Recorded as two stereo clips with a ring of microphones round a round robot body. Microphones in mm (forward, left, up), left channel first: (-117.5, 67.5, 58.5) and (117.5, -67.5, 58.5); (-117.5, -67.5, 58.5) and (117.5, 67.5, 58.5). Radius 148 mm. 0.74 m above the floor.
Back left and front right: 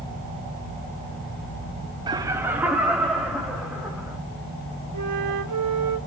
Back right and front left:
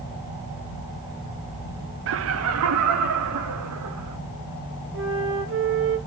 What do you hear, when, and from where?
2.1 s laughter: 40° left, 0.5 m; by 4.2 s 60° left, 2 m
4.9 s a flute: 15° right, 2.5 m